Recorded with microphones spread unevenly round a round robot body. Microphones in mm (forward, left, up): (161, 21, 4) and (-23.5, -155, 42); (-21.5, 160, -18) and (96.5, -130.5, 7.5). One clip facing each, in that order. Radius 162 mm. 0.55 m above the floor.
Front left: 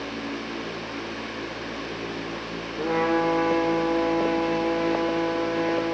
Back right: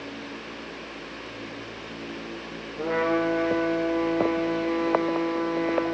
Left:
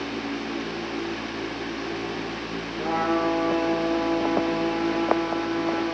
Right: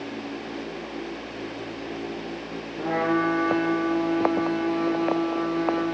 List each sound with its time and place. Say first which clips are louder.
2.8 s a trumpet: front left 1 dB, right 1 dB; 30° right, 3.5 m